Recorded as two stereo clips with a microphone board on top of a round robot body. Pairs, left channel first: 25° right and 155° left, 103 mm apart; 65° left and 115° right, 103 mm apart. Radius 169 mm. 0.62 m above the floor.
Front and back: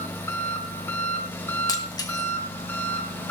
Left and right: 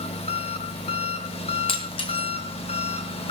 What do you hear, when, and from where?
0.0 s an engine running: 45° left, 2.5 m
1.7 s breaking glass: 30° left, 1.9 m